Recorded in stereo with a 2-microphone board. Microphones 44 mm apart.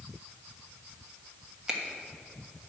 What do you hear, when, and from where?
1.7 s a finger snap: 15° right (ahead or behind), 1.2 m